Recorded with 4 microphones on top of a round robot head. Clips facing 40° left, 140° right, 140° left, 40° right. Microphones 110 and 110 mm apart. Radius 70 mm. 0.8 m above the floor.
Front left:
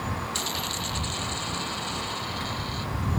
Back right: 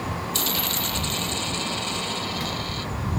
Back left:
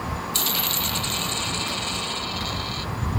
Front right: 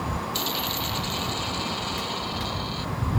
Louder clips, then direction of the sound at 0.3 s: Back right 3 dB, even; 175° right.